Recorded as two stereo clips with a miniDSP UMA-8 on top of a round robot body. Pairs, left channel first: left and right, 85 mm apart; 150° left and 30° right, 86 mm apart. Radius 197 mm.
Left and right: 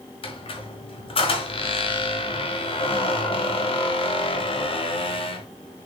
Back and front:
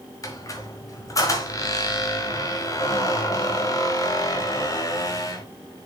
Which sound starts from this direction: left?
A squeak, at 0.2 s.